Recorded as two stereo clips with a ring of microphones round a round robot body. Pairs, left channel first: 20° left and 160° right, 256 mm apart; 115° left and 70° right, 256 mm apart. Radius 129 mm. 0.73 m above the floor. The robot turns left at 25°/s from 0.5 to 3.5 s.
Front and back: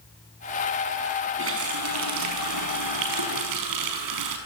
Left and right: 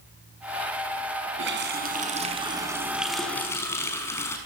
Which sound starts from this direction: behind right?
A running tap, at 1.4 s.